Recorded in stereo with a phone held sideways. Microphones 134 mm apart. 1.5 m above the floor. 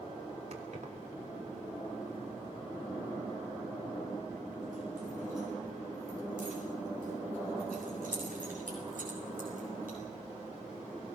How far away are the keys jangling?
About 3 m.